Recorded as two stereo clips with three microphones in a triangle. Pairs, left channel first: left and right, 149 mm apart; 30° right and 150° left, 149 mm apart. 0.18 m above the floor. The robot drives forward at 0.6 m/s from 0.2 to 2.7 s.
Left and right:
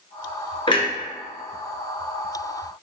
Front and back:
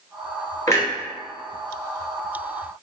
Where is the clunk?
35° left, 1.0 m; by 0.9 s 40° left, 0.9 m.